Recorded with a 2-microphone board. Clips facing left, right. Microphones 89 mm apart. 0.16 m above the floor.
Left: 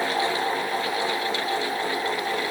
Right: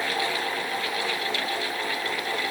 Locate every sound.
Only background noise.